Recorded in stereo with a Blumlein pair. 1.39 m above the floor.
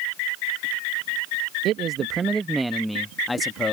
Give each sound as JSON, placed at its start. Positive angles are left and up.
{"t": 1.6, "sound": "a man speaking", "azimuth_deg": -30}